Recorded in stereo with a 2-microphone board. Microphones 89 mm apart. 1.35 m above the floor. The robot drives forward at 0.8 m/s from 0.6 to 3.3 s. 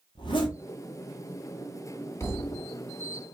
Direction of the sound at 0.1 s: 65° left (ahead or behind).